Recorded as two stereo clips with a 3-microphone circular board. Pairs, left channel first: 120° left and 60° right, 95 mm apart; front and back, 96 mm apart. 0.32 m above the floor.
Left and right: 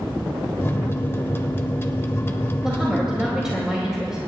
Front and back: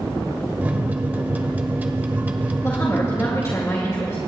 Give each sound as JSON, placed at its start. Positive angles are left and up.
{"t": 0.6, "sound": "a microwave", "azimuth_deg": 135, "distance_m": 0.7}
{"t": 2.6, "sound": "a woman speaking", "azimuth_deg": 20, "distance_m": 1.7}